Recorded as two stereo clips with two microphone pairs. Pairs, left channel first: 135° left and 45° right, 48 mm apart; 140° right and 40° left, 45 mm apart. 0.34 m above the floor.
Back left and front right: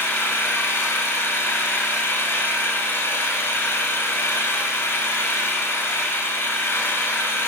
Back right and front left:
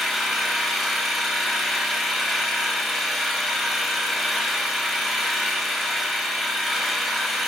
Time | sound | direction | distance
0.0 | an engine running | 135° left | 0.8 m